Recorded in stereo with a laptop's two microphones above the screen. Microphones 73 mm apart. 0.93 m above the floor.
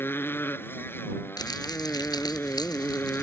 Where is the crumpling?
75° left (ahead or behind).